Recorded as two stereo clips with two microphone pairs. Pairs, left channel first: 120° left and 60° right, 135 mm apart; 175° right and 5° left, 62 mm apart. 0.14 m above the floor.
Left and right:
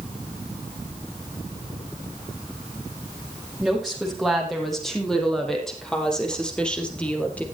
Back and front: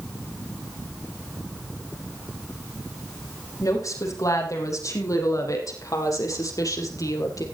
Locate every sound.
3.6 s a woman speaking: 150° right, 6 m; by 7.5 s 160° right, 3.5 m